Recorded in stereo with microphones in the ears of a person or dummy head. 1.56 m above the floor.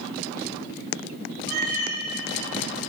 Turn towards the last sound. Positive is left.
turn(degrees=-50)  # may be behind; listen again after turning